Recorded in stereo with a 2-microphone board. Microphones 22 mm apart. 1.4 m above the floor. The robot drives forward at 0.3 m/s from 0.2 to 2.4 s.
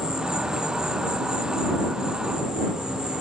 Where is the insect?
45° right (ahead or behind), 5 m; by 3.2 s 40° right (ahead or behind), 5.5 m.